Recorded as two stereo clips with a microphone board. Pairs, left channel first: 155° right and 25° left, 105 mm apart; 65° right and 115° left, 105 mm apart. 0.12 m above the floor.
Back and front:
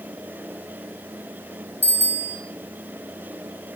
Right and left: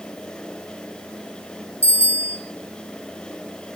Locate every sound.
1.8 s a bicycle bell: 85° right, 4.5 m